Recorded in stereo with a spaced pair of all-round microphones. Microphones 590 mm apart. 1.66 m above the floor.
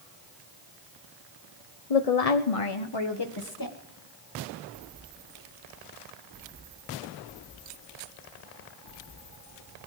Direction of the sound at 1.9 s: 70° left (ahead or behind).